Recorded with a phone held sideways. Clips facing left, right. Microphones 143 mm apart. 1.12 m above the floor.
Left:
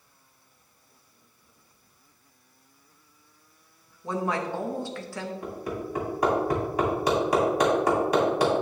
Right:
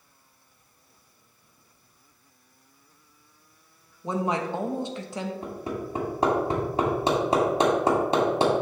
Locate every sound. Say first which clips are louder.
4.0 s a woman speaking: right 1 dB; 20° right (ahead or behind), 1.0 m
5.4 s hammering: even; 25° right (ahead or behind), 2 m